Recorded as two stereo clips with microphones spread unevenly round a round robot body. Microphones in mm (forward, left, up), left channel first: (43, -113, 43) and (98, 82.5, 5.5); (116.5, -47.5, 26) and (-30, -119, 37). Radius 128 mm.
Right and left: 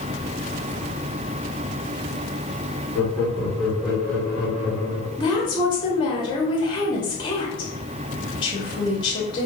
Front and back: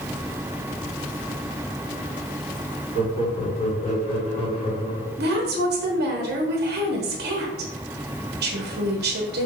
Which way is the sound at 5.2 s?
Straight behind.